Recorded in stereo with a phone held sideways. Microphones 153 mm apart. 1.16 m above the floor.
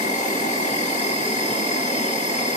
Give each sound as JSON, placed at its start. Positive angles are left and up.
{"t": 0.0, "sound": "an insect", "side_deg": 50, "distance_m": 1.5}